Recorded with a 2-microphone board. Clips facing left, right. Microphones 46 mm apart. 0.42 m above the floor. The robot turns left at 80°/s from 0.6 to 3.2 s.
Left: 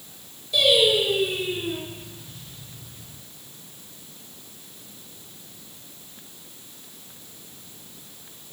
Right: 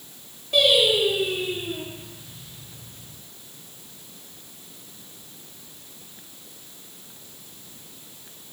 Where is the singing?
130° right, 4 m; by 1.8 s 135° left, 4 m.